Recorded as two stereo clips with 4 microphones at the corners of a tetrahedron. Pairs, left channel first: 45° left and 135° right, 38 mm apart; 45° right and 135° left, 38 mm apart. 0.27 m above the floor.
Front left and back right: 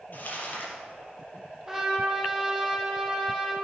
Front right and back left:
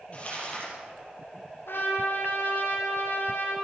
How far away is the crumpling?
About 7 m.